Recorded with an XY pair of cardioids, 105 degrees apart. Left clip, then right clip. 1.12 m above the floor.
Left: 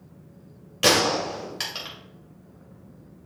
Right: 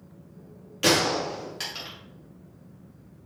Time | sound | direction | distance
0.8 | a gunshot | 30° left | 1.9 m